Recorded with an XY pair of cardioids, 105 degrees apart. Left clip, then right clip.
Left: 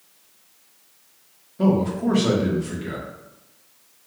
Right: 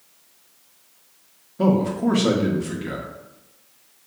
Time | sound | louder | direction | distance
1.6 | a man speaking | right 1 dB | 20° right | 0.8 m